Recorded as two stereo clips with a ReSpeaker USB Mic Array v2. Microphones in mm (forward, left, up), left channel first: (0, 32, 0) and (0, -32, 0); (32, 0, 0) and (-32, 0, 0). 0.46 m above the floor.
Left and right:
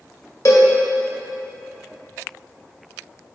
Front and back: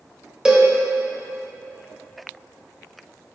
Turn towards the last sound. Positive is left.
turn(degrees=100)